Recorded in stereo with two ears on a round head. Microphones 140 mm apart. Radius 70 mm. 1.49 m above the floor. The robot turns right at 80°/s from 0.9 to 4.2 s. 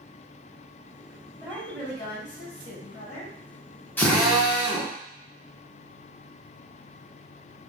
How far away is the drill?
About 0.7 m.